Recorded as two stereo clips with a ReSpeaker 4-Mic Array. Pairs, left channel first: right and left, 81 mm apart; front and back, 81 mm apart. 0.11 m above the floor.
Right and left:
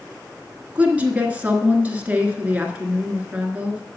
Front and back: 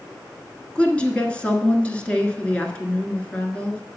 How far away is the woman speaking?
About 1.2 m.